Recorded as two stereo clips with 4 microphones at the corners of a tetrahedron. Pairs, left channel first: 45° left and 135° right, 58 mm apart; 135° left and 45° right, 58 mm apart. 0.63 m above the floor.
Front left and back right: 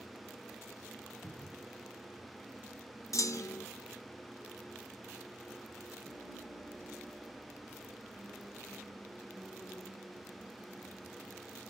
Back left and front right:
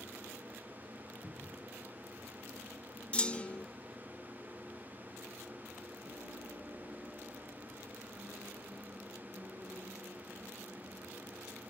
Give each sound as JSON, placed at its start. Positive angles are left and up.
{"t": 1.2, "sound": "a cupboard door", "azimuth_deg": -30, "distance_m": 3.0}
{"t": 3.1, "sound": "a clunk", "azimuth_deg": 65, "distance_m": 0.6}
{"t": 6.0, "sound": "a piano", "azimuth_deg": -75, "distance_m": 7.0}